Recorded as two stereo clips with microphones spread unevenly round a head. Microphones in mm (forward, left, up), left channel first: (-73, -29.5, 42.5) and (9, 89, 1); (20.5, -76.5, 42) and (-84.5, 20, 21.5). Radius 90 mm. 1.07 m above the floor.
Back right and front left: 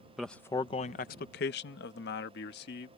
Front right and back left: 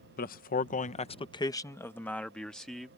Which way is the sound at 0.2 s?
25° right.